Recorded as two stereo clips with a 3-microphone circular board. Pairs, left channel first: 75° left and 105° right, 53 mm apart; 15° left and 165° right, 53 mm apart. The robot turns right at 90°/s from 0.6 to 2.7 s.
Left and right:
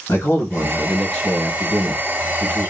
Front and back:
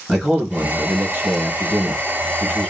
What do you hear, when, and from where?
0.1 s a man speaking: 110° left, 1.9 m; by 2.7 s 60° right, 1.9 m